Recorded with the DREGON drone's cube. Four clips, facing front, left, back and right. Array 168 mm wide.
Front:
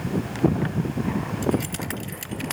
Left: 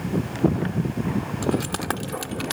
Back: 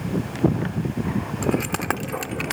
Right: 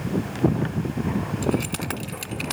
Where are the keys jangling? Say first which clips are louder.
Left 2 dB, back 3 dB; 150° left; by 2.5 s 155° left.